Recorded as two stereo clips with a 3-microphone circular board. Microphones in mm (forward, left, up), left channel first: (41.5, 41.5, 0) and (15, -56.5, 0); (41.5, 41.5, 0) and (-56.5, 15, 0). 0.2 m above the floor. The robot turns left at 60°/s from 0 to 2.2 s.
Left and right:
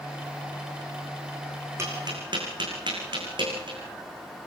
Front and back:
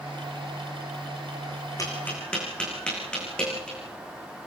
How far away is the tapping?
About 7.5 m.